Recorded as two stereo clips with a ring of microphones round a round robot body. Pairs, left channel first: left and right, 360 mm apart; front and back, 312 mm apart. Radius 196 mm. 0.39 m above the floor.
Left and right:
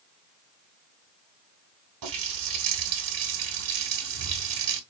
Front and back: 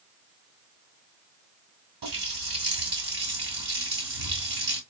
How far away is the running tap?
About 2 m.